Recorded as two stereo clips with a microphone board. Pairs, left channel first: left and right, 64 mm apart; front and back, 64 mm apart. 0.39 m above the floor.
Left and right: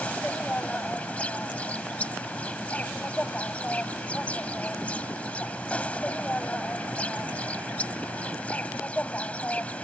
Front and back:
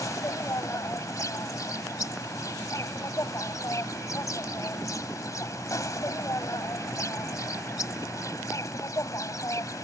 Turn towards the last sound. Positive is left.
turn(degrees=25)